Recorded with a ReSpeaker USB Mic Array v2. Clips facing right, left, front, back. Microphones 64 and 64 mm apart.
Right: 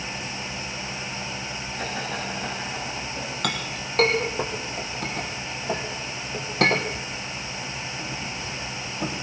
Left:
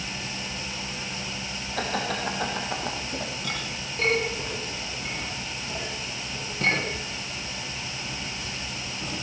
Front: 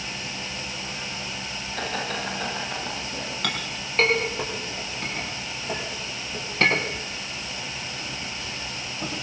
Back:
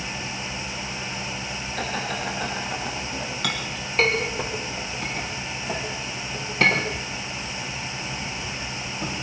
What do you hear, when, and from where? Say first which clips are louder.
1.8 s laughter: left 3 dB, even; 90° left, 8 m; by 3.3 s 95° left, 9 m
3.4 s a clink: right 4 dB, back 1 dB; 90° right, 5 m